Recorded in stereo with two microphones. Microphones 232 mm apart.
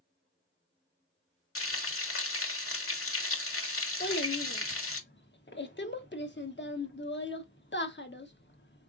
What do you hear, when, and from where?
1.6 s frying: 70° left (ahead or behind), 1.0 m
4.0 s a child speaking: 50° left (ahead or behind), 1.0 m